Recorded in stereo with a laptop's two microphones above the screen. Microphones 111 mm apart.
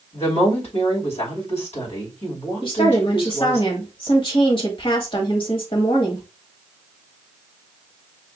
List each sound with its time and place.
0.1 s a woman speaking: 75° left (ahead or behind), 3 m
2.6 s a woman speaking: 50° left (ahead or behind), 2.0 m